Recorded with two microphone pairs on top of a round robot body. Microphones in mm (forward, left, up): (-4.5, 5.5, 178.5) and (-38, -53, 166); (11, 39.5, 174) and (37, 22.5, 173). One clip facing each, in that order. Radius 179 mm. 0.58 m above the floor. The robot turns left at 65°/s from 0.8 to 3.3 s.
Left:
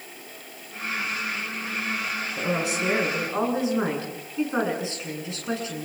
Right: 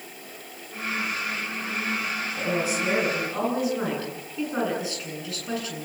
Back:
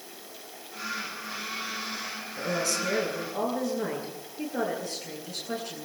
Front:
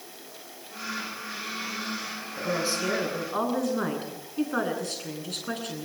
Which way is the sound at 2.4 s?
55° left.